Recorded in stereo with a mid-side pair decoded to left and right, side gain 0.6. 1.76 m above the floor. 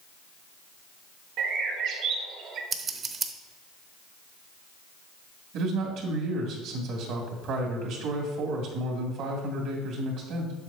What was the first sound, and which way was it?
A bird, 65° right.